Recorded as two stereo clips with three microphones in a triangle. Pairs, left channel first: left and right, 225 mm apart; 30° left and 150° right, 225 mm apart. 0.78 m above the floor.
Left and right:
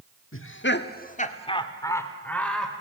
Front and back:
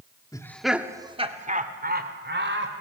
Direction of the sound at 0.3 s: 105° left.